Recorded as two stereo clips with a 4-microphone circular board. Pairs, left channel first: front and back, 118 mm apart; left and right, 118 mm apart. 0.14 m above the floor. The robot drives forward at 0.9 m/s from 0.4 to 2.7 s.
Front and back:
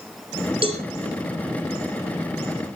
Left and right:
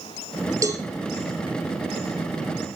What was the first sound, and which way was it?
A cowbell, 145° right.